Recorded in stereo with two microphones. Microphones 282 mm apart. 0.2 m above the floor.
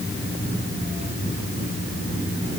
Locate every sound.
Only background noise.